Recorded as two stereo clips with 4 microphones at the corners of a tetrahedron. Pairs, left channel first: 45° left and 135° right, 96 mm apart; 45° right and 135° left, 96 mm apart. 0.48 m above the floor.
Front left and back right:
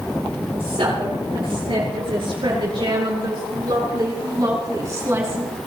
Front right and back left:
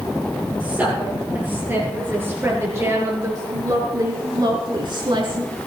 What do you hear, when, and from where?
0.6 s a woman speaking: 150° right, 9.5 m; by 5.7 s 160° left, 4.5 m